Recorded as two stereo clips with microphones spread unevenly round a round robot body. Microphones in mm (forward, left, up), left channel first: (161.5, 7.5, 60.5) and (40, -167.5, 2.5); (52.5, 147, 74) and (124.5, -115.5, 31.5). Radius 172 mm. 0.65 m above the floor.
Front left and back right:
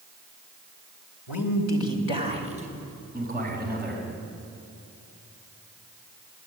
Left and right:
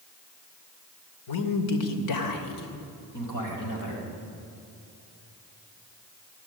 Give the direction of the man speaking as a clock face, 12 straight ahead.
9 o'clock.